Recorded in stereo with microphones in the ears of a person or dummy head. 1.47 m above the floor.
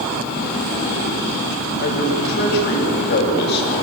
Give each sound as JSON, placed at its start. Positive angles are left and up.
{"t": 1.8, "sound": "a man speaking", "side_deg": 60, "distance_m": 7.0}